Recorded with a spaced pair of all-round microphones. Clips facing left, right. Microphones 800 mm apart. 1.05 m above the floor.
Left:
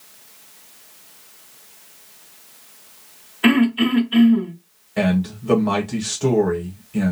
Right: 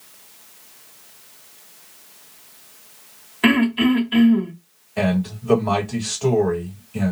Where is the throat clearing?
60° right (ahead or behind), 1.0 m.